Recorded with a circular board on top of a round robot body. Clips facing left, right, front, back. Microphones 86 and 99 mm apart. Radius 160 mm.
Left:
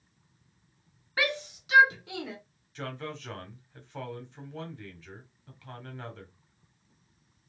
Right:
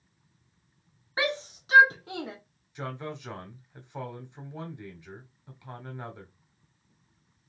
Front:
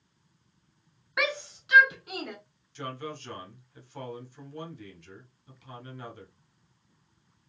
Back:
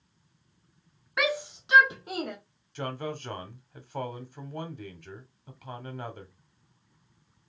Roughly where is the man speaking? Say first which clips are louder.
Right 1 dB, back 3 dB; behind.